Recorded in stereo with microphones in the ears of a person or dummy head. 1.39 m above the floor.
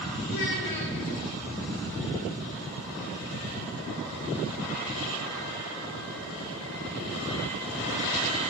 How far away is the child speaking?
About 2.5 m.